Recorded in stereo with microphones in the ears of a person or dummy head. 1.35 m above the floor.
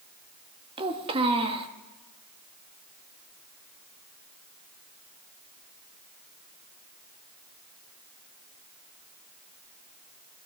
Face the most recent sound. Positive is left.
turn(degrees=-30)  # may be behind; listen again after turning